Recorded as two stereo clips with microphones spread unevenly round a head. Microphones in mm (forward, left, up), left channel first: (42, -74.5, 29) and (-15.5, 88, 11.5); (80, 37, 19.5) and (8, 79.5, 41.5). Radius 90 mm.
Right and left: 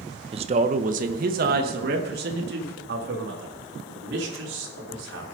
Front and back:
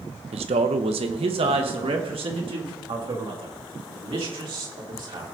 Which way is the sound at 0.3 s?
170° left.